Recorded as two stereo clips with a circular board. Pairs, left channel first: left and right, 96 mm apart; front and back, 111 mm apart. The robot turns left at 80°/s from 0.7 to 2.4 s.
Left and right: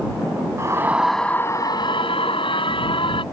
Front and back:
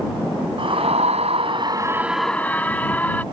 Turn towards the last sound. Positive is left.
turn(degrees=75)